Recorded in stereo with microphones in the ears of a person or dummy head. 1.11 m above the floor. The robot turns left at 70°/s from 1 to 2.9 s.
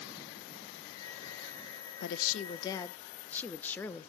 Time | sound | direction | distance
2.0 | a woman speaking | 75° left | 0.5 m